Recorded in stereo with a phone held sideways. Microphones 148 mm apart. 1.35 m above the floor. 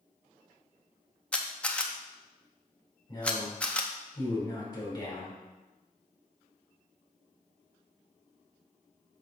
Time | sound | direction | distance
1.3 | a camera shutter | 10° left (ahead or behind) | 0.7 m
3.1 | a man speaking | 30° left (ahead or behind) | 4 m